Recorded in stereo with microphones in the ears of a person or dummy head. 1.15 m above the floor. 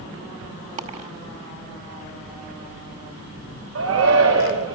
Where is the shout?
80° right, 2.5 m.